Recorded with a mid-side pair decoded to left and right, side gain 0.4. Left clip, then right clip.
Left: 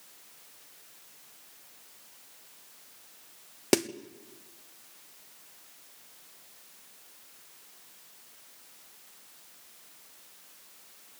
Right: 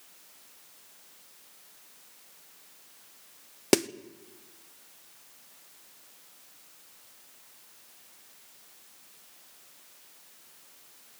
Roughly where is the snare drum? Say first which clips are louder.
Right 2 dB; ahead.